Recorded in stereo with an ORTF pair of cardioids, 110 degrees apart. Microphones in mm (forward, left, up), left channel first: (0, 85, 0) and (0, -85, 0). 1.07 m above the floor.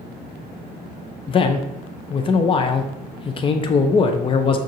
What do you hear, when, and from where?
1.3 s a man speaking: 30° left, 0.5 m